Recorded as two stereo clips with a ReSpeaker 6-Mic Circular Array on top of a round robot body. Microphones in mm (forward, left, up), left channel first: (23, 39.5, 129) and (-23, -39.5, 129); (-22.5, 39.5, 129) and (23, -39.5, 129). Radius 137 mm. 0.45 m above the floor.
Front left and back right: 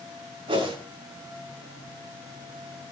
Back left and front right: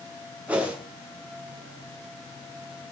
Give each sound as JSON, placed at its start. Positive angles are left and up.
{"t": 0.5, "sound": "a whoosh", "azimuth_deg": -135, "distance_m": 6.5}